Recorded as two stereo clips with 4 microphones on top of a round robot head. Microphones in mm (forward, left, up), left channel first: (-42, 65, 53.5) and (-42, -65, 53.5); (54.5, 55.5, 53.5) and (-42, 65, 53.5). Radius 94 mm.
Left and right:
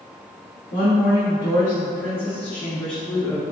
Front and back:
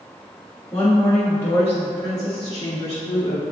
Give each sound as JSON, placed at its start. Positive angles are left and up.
{"t": 0.7, "sound": "a woman speaking", "azimuth_deg": 70, "distance_m": 2.5}